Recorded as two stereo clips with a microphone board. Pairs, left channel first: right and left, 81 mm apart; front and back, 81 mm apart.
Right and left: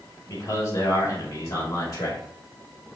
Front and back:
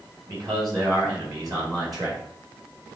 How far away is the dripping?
No dripping in this recording.